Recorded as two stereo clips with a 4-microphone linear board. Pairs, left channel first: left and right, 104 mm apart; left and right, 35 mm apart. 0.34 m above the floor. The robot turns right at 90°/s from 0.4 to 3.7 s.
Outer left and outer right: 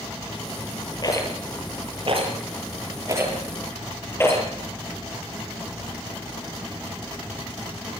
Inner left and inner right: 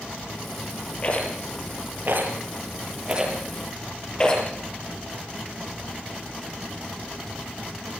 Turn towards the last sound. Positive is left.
turn(degrees=25)  # may be behind; listen again after turning